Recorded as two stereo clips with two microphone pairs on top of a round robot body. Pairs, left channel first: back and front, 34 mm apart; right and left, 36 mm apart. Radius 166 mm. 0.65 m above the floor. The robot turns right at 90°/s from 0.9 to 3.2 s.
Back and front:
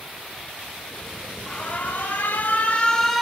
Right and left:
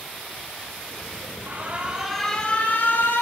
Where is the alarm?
115° left, 3 m; by 3.2 s 90° right, 3 m.